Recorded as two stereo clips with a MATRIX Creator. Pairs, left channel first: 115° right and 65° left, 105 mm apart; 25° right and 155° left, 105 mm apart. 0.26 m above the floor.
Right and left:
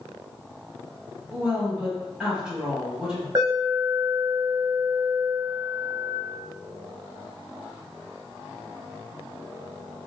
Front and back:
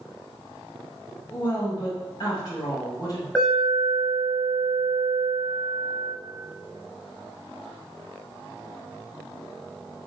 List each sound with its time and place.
1.3 s a woman speaking: 5° right, 1.9 m
3.4 s an alarm: 55° left, 1.2 m